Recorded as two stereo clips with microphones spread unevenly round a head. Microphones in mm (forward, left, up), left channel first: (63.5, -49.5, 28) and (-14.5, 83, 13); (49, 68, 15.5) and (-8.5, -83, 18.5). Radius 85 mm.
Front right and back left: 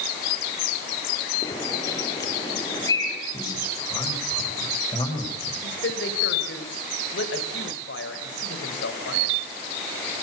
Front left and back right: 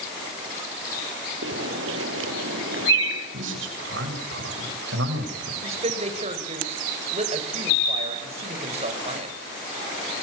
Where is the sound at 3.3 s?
130° right, 8 m.